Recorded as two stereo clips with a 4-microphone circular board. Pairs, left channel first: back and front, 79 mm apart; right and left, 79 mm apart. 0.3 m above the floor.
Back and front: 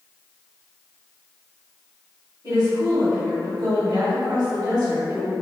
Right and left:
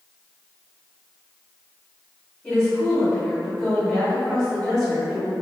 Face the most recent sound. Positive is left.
turn(degrees=-5)